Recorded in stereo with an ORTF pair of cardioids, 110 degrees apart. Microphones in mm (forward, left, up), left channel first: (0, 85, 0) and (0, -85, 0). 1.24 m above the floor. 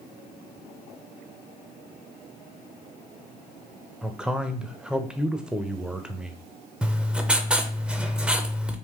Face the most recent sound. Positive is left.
turn(degrees=-5)